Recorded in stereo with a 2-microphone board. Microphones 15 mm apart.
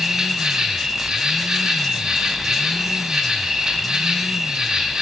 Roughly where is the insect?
Right.